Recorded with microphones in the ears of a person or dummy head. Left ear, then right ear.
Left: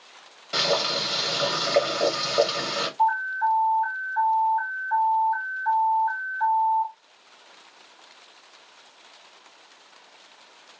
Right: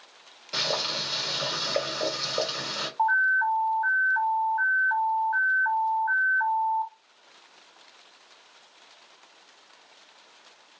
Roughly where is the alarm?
Right.